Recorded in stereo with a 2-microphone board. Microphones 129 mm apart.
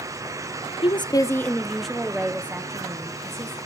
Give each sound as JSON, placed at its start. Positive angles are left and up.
{"t": 0.8, "sound": "a woman speaking", "side_deg": 45, "distance_m": 0.6}